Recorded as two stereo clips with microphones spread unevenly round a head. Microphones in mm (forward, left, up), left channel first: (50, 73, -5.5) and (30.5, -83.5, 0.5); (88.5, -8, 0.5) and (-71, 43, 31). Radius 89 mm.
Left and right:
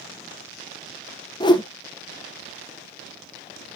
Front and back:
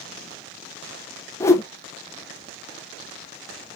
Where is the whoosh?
60° left, 0.6 m.